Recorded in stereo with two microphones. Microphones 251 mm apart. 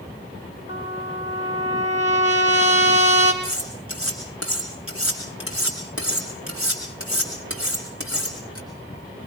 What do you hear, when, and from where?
0.7 s a trumpet: 30° right (ahead or behind), 5.5 m
3.4 s cutlery clinking: 70° right (ahead or behind), 6.5 m